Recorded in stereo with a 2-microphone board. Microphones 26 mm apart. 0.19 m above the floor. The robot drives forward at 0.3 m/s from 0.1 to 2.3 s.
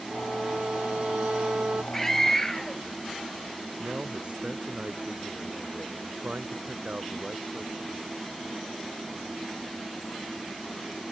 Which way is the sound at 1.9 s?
10° left (ahead or behind).